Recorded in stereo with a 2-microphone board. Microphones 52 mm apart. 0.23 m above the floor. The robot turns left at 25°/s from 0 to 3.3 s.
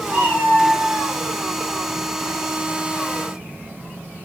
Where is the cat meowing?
40° right (ahead or behind), 7 m; by 1.1 s 15° right (ahead or behind), 7 m.